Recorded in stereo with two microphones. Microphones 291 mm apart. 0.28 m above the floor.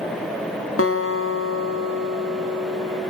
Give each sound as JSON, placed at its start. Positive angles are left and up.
{"t": 0.8, "sound": "a guitar", "side_deg": 50, "distance_m": 2.5}